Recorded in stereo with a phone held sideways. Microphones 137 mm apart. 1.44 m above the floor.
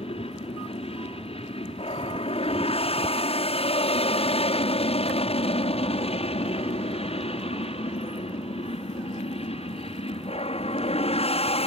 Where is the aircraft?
45° left (ahead or behind); by 11.7 s 50° left (ahead or behind).